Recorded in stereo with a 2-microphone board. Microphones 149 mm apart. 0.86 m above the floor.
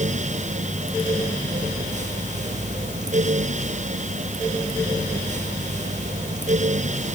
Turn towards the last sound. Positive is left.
No sound to turn to.